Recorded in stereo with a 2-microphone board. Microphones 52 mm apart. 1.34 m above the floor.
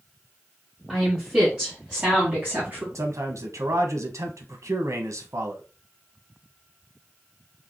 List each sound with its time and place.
0.9 s a woman speaking: 15° right (ahead or behind), 2.5 m; by 2.9 s 40° right (ahead or behind), 1.8 m
3.0 s a man speaking: 75° right (ahead or behind), 0.9 m